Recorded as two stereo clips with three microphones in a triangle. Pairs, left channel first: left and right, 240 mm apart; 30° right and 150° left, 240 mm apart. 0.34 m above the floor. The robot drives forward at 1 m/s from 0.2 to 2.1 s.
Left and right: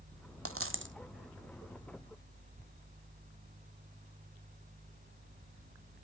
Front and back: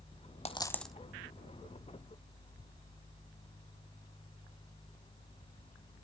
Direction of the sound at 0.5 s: 95° right.